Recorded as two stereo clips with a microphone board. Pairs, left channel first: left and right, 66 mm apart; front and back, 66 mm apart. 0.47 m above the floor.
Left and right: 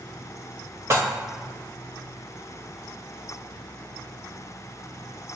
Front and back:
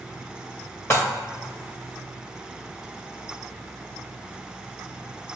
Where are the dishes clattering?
50° right, 1.3 m.